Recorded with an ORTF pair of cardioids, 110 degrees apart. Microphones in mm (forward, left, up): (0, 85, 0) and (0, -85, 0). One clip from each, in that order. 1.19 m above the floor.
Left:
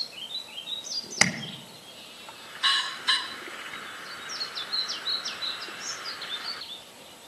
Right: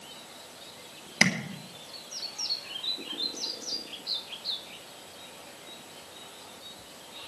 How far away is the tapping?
About 2.5 m.